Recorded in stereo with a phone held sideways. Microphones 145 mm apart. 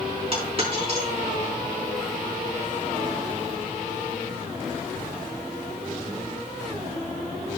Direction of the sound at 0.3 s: 40° right (ahead or behind).